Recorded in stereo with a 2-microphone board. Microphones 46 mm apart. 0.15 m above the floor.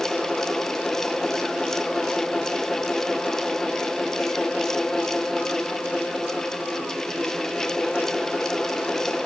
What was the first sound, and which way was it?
Only background noise.